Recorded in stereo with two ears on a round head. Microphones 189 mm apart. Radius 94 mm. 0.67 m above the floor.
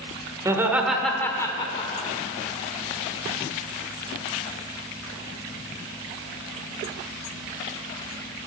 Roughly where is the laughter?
Centre.